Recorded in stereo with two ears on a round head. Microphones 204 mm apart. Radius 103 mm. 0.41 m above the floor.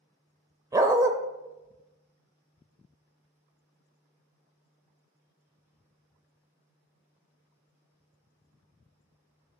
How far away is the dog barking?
About 0.6 m.